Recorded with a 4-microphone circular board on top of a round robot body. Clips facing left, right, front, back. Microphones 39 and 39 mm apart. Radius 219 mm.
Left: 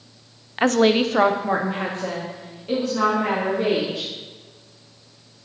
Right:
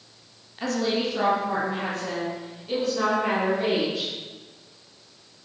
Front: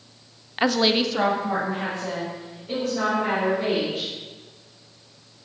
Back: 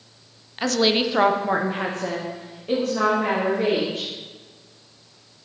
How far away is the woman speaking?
About 0.6 m.